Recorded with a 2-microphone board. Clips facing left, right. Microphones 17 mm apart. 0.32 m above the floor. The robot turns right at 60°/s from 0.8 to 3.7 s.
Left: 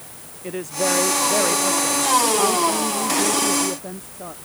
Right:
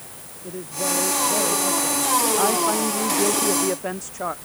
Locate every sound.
0.4 s a woman speaking: 100° left; by 4.3 s 85° right